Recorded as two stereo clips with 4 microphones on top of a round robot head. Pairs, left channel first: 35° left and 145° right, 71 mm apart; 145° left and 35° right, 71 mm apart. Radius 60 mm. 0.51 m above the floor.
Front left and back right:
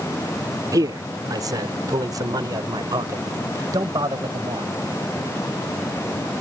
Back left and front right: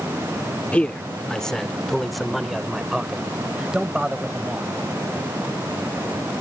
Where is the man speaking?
145° right; by 4.7 s 110° right.